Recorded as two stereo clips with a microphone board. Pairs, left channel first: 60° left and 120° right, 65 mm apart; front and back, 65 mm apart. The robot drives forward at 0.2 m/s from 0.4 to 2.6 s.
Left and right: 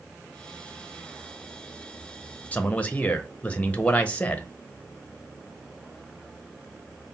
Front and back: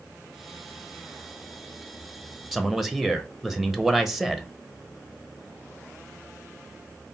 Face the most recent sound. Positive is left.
turn(degrees=100)